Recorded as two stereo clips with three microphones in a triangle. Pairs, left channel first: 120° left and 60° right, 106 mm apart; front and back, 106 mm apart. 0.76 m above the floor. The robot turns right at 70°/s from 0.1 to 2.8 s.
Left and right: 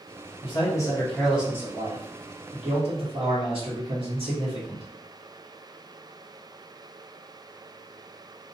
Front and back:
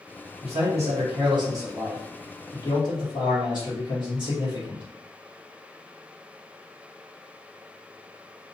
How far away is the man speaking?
About 1.7 m.